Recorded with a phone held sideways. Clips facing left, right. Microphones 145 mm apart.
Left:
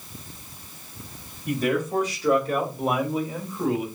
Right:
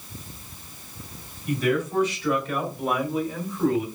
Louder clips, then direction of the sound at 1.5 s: Even; 45° left (ahead or behind).